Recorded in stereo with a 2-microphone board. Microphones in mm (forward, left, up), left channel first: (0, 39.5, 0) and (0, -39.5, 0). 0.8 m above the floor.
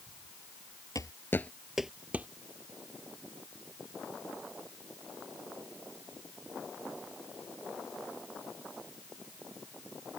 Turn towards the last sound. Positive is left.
turn(degrees=-20)  # may be behind; listen again after turning